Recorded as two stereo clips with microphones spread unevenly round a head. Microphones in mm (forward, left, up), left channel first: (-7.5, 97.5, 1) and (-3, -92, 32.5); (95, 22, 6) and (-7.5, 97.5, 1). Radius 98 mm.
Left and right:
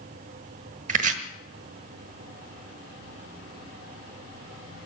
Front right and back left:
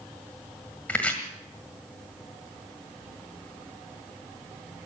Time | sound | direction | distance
0.9 | chopping | 115° right | 1.4 m